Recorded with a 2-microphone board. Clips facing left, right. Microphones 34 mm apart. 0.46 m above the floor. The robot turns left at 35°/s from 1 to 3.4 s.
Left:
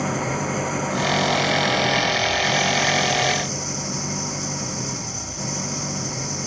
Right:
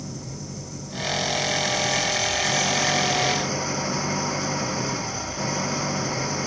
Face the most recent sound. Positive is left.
turn(degrees=-20)